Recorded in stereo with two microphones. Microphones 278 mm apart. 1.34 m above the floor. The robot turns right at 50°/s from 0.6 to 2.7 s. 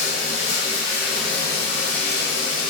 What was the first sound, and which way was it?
Running water, 30° right.